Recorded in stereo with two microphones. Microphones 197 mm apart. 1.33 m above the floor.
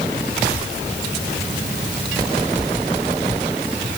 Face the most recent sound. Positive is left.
No sound to turn to.